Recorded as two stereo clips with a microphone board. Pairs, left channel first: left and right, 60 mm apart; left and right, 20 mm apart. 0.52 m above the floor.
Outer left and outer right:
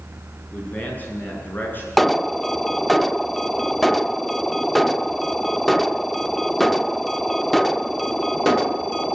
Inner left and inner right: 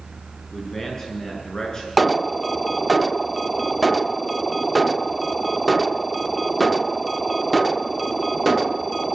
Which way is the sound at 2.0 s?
5° left (ahead or behind).